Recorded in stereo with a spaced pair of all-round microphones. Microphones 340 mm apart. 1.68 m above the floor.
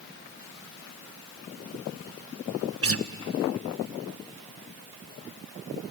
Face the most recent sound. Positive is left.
turn(degrees=-40)  # may be behind; listen again after turning